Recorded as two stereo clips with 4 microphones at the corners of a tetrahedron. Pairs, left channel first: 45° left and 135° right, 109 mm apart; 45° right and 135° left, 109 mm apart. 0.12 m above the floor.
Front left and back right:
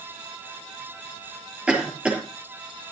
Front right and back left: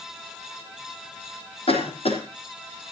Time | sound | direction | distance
1.7 | a cough | 55° right | 4 m